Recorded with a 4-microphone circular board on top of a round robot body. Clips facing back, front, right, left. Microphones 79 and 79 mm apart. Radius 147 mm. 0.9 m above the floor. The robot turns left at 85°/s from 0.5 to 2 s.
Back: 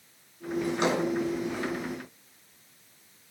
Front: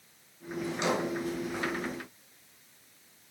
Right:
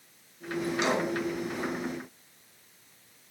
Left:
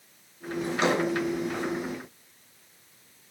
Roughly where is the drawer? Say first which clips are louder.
Back 3 dB, left 3 dB; behind left.